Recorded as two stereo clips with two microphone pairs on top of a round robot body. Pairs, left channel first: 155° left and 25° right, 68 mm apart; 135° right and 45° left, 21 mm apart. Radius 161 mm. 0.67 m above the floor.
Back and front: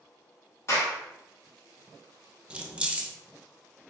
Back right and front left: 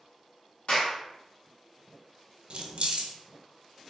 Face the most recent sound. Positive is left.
turn(degrees=40)